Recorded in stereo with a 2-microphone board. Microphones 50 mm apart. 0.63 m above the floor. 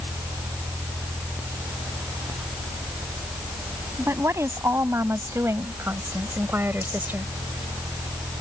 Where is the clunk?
I don't hear a clunk.